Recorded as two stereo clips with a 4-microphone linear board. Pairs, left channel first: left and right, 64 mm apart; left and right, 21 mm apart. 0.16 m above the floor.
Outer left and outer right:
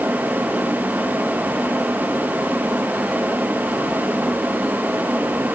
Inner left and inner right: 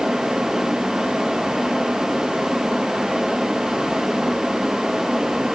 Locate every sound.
Only background noise.